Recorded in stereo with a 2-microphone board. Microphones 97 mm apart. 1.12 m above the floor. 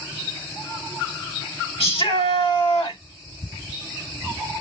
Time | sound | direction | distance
1.8 | a shout | 75° left (ahead or behind) | 3 m